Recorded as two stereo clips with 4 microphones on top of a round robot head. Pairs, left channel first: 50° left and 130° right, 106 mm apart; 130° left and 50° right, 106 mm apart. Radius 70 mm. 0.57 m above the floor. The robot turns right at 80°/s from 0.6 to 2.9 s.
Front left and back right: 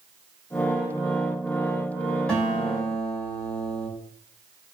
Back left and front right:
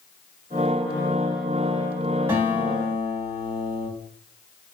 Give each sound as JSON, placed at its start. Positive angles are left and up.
{"t": 2.3, "sound": "a guitar", "azimuth_deg": -20, "distance_m": 1.2}